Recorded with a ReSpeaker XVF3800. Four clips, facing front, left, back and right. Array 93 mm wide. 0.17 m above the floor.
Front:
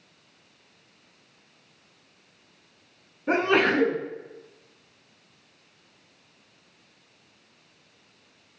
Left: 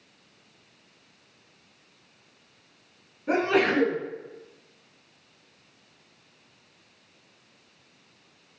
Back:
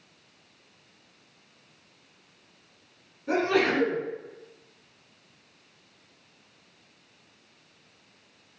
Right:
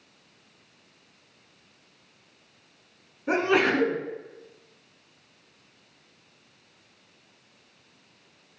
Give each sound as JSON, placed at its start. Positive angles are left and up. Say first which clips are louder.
{"t": 3.3, "sound": "a sneeze", "louder": "even, front 2 dB", "azimuth_deg": -25, "distance_m": 1.3}